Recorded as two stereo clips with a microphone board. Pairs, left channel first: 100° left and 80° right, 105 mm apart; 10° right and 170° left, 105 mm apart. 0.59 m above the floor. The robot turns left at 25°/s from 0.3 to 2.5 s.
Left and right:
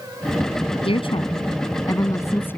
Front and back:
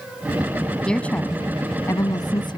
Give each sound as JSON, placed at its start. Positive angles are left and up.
{"t": 0.8, "sound": "a woman speaking", "azimuth_deg": 70}